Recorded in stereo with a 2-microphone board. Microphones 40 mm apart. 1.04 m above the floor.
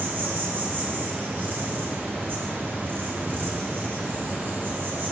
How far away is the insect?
About 1.0 m.